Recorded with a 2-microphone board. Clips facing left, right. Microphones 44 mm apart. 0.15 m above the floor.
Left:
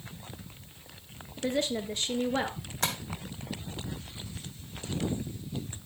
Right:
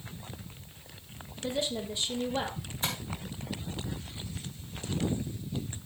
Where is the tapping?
80° left, 3 m.